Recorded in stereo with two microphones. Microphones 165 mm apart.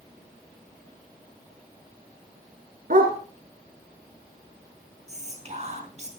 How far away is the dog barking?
About 2.5 m.